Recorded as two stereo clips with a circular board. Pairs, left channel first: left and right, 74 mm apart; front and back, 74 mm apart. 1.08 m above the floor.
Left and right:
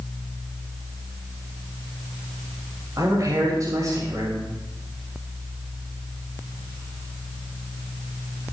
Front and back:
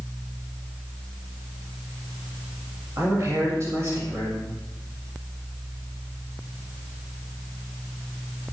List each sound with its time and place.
3.0 s a man speaking: 130° right, 7 m